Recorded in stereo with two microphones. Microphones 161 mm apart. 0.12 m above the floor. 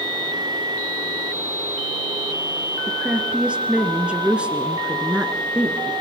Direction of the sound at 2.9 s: 5° right (ahead or behind).